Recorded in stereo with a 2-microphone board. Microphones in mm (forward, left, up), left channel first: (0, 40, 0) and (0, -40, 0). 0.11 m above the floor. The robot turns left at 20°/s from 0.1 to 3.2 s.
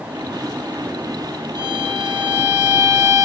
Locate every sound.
1.6 s a violin: 95° right, 3 m; by 3.2 s 130° right, 3 m